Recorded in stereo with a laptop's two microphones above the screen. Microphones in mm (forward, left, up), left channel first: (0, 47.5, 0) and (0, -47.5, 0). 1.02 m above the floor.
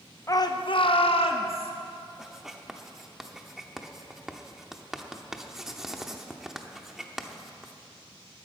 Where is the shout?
35° left (ahead or behind), 0.6 m; by 1.7 s 80° left, 1.8 m.